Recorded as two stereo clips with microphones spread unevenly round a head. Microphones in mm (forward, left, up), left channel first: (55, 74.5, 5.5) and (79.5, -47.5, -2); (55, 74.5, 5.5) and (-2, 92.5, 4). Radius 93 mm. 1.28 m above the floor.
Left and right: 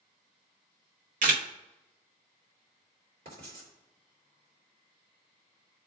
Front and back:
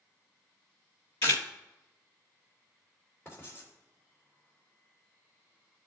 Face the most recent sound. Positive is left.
turn(degrees=-115)